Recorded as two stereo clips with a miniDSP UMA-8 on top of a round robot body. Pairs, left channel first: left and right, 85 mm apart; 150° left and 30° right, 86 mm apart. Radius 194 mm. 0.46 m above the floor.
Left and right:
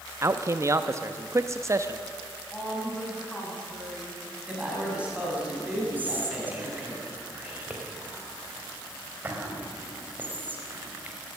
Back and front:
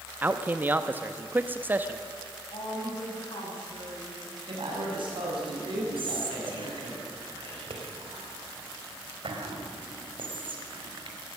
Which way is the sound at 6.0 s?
20° right.